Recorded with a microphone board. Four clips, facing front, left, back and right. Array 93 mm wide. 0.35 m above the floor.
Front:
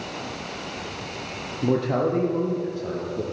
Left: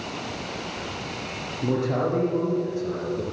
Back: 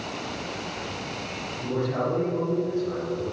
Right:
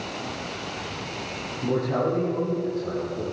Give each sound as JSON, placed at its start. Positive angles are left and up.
{"t": 1.6, "sound": "a man speaking", "azimuth_deg": 10, "distance_m": 7.5}